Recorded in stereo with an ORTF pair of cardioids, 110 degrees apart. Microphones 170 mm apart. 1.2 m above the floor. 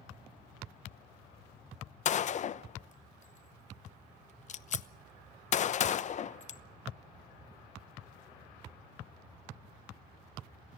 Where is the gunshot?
45° left, 0.9 m.